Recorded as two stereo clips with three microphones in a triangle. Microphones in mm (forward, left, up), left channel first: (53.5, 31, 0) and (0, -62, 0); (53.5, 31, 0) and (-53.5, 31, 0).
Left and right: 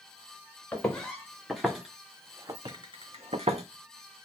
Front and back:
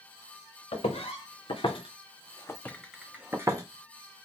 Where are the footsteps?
20° right, 1.5 m; by 3.6 s 125° right, 0.7 m.